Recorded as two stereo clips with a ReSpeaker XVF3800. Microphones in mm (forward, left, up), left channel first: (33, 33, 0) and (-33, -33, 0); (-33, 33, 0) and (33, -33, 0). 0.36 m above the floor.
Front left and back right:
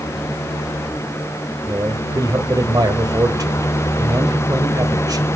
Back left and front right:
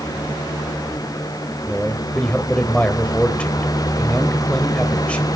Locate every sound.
1.7 s a man speaking: 155° right, 1.3 m